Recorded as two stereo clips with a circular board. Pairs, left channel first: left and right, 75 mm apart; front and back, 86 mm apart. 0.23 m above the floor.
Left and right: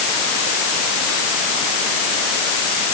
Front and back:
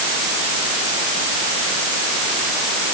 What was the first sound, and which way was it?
Only background noise.